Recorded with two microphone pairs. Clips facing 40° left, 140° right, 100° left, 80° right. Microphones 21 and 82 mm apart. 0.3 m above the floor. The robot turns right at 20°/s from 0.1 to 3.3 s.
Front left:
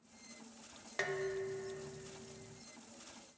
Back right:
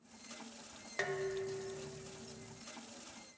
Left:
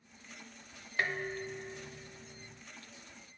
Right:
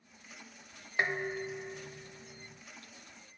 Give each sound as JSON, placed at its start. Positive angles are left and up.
{"t": 1.0, "sound": "dishes clattering", "azimuth_deg": -40, "distance_m": 0.8}